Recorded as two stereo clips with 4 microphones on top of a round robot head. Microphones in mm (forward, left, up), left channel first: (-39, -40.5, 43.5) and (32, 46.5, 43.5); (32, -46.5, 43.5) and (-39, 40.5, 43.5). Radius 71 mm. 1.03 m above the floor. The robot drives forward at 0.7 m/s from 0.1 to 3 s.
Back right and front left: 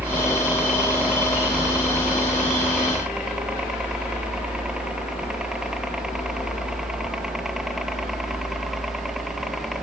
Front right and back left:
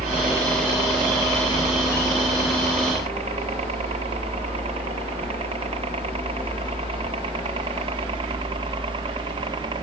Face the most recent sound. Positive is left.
turn(degrees=135)